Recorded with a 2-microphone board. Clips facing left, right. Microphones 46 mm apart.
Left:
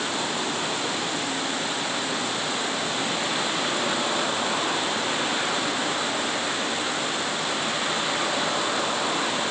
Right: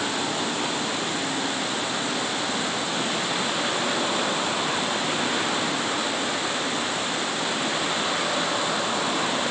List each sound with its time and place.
Only background noise.